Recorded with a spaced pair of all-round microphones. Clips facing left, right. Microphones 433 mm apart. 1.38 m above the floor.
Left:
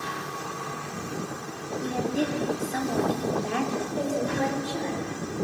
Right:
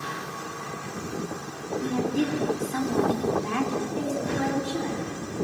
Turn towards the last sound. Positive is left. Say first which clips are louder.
# left 3 dB
turn(degrees=-25)  # may be behind; listen again after turning